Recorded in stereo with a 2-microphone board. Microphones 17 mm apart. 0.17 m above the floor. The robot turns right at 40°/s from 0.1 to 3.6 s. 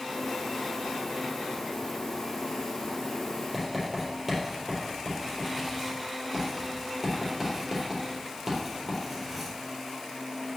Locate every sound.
3.5 s writing: 5° right (ahead or behind), 4 m